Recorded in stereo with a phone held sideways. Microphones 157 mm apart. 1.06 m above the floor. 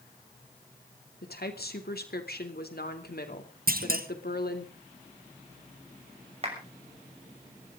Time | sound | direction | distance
1.2 | a woman speaking | 80° left | 2.5 m
3.7 | a clunk | 65° right (ahead or behind) | 1.4 m
6.4 | a clap | 40° right (ahead or behind) | 6 m